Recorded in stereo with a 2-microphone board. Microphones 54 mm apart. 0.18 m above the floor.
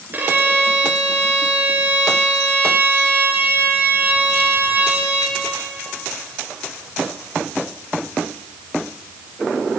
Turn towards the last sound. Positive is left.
turn(degrees=-40)  # may be behind; listen again after turning